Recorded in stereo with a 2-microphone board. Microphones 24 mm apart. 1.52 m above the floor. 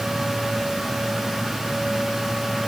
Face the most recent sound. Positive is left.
No sound to turn to.